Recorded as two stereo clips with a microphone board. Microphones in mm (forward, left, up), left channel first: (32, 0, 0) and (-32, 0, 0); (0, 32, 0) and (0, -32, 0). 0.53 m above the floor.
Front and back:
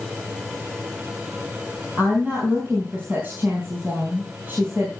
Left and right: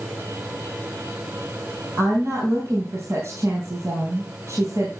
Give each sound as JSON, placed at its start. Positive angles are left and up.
{"t": 2.0, "sound": "a woman speaking", "azimuth_deg": -125, "distance_m": 5.0}